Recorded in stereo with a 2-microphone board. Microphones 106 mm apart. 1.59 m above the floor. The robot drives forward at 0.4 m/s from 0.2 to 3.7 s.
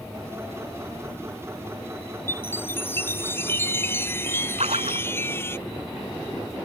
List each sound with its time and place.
2.3 s a chime: 20° left (ahead or behind)
4.6 s a splash: 85° right